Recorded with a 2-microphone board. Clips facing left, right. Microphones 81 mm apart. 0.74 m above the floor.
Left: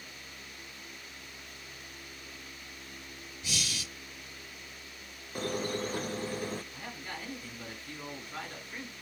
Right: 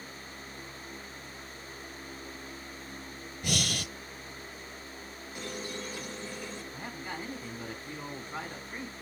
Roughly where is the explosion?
I don't hear an explosion.